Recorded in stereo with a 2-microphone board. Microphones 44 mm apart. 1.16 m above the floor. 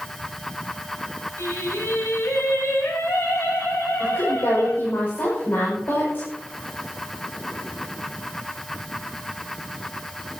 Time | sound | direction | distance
1.4 | singing | 80° left | 7.5 m
4.0 | a woman speaking | 50° left (ahead or behind) | 5.5 m